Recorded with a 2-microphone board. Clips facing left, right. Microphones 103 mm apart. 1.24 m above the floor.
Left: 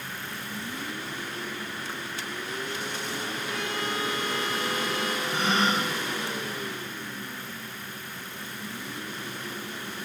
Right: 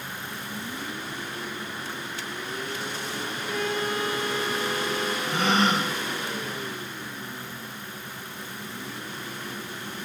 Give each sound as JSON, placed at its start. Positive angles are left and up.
{"t": 3.5, "sound": "a violin", "side_deg": -45, "distance_m": 1.6}
{"t": 5.3, "sound": "a gasp", "side_deg": -80, "distance_m": 2.0}